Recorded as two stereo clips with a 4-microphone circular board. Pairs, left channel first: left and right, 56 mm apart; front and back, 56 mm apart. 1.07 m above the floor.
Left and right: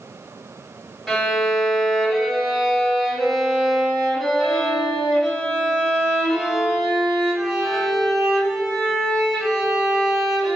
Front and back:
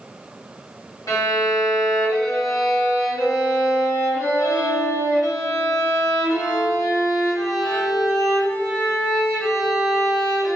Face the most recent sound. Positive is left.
turn(degrees=5)